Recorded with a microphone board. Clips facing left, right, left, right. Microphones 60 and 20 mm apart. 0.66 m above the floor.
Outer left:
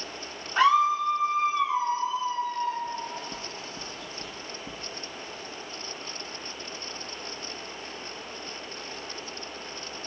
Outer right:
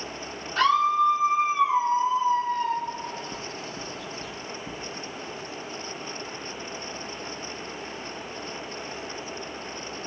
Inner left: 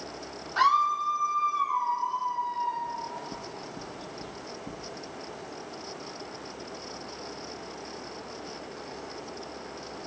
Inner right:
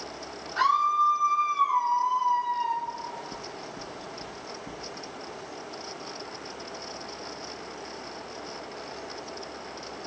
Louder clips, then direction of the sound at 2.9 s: Outer right 1 dB, even; 15° left (ahead or behind).